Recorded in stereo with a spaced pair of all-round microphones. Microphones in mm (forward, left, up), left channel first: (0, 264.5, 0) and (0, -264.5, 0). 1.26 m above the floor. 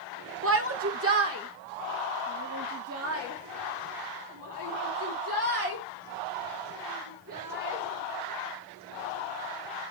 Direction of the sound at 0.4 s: 25° right (ahead or behind).